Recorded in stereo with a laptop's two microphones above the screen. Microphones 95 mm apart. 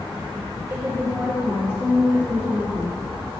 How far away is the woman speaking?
About 1.0 m.